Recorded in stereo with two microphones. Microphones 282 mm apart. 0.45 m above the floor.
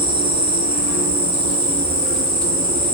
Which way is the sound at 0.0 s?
65° right (ahead or behind).